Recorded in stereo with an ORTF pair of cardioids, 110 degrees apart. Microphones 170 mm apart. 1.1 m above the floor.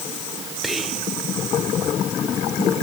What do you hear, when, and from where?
0.6 s whispering: straight ahead, 4 m